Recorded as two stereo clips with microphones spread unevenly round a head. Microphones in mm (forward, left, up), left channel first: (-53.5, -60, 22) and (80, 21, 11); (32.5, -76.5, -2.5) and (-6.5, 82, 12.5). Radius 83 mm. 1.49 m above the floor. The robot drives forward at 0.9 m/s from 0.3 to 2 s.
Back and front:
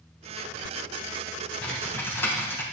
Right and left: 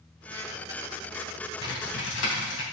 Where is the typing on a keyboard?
70° right, 3.5 m; by 2.6 s 75° right, 3.5 m.